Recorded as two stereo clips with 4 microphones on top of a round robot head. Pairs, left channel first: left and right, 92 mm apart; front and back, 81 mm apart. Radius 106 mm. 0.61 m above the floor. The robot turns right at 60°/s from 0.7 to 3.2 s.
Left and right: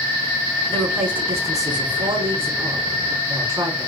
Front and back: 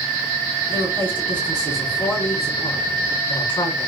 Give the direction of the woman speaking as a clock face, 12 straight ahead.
6 o'clock.